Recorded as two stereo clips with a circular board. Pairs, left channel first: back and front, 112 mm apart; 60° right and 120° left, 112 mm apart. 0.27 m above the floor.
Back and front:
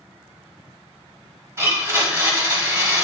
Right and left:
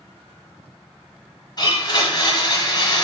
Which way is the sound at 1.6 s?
45° right.